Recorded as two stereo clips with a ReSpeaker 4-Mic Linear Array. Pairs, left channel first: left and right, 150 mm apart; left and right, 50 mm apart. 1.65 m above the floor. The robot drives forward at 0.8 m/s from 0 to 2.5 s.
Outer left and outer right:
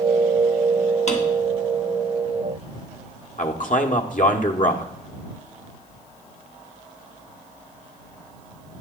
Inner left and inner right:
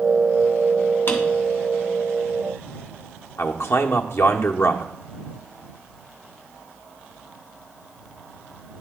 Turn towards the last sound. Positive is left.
turn(degrees=60)  # may be behind; listen again after turning